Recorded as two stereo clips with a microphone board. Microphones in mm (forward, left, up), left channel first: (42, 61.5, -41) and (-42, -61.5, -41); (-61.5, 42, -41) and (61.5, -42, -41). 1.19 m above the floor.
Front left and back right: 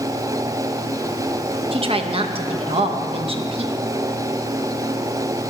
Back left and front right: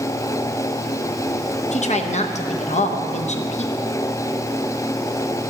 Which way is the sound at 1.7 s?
175° right.